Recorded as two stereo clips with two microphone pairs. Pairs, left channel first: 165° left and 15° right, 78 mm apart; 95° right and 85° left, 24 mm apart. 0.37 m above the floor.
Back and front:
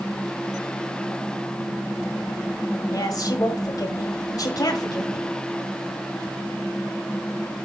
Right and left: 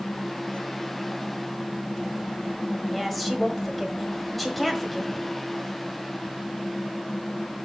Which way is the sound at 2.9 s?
175° right.